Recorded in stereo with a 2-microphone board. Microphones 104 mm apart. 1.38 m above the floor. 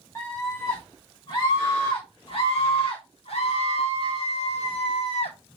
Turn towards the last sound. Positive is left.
turn(degrees=75)  # may be behind; listen again after turning